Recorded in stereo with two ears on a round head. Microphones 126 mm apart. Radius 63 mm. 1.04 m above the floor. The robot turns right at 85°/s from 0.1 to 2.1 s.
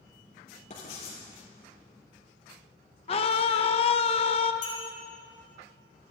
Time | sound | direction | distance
0.7 | writing | 55° left | 6.5 m
3.1 | a scream | 45° left (ahead or behind) | 1.1 m
4.6 | a clink | 55° left (ahead or behind) | 5.5 m